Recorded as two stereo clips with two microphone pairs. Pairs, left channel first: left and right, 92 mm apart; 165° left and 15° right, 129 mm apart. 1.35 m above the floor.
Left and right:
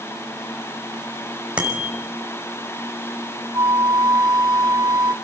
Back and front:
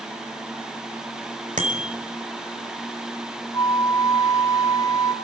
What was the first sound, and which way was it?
A bicycle bell, 10° right.